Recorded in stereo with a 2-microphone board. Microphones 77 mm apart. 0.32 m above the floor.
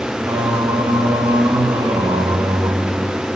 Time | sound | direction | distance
0.2 | singing | 65° right (ahead or behind) | 0.9 m